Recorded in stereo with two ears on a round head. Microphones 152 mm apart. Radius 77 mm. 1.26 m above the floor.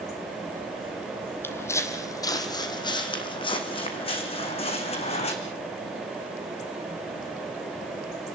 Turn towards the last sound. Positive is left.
turn(degrees=40)  # may be behind; listen again after turning